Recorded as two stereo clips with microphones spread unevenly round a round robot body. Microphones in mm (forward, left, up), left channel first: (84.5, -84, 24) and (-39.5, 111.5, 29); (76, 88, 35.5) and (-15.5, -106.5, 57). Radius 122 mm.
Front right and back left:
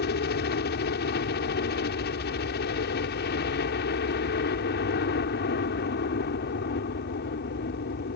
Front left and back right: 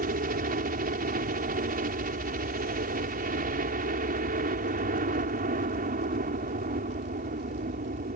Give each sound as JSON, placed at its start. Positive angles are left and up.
{"t": 0.0, "sound": "a helicopter", "azimuth_deg": -80}